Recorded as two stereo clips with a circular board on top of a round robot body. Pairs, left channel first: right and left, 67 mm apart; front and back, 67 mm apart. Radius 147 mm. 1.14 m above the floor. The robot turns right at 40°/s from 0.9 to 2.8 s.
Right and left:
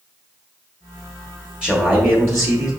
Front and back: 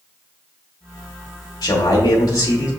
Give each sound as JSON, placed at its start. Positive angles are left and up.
{"t": 1.6, "sound": "a man speaking", "azimuth_deg": 10, "distance_m": 1.1}